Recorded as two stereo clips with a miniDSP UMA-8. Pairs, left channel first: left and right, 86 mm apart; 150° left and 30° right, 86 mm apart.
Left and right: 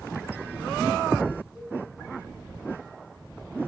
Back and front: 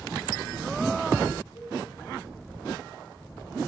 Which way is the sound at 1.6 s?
175° right.